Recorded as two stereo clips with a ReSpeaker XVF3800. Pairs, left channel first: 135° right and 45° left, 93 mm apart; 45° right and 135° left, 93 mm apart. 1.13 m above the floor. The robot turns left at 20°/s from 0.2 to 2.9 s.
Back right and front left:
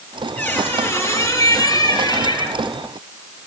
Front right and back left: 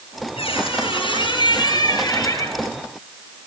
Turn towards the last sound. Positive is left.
turn(degrees=-110)